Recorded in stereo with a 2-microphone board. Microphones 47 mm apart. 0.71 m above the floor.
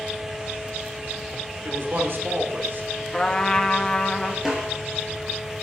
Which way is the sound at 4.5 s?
10° right (ahead or behind).